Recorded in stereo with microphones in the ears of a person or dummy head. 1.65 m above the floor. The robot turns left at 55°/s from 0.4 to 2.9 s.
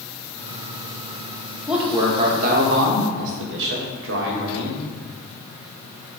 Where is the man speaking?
Straight ahead, 1.8 m; by 4.8 s 70° right, 1.8 m.